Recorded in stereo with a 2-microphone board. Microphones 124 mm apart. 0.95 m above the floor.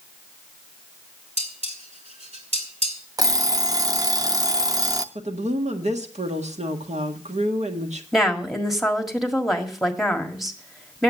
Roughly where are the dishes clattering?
Right.